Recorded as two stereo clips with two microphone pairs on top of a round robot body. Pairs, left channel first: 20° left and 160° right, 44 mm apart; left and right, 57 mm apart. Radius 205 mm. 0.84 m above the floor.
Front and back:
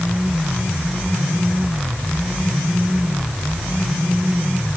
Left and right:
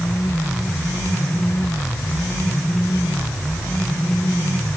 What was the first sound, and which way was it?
Only background noise.